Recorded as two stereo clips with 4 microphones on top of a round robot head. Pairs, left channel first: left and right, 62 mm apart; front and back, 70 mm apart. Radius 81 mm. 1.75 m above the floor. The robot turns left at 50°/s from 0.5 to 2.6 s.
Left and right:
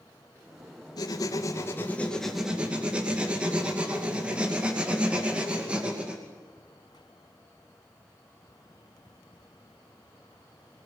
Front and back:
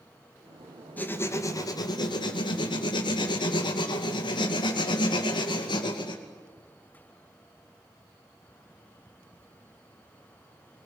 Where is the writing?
70° left, 2.5 m; by 6.2 s 15° right, 2.5 m.